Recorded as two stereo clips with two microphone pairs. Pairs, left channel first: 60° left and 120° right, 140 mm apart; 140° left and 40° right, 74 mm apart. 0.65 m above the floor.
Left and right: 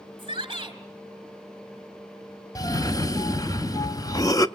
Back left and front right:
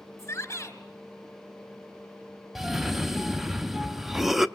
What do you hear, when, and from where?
0.2 s a shout: 175° right, 3.5 m
2.5 s a cough: 40° left, 0.8 m